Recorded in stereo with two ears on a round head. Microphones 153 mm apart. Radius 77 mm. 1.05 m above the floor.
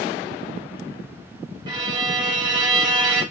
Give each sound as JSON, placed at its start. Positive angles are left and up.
{"t": 1.7, "sound": "a violin", "side_deg": -25, "distance_m": 1.2}